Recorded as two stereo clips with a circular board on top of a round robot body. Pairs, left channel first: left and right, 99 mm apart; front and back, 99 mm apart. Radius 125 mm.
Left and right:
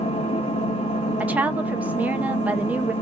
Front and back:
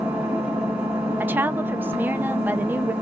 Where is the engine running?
105° left, 1.7 m.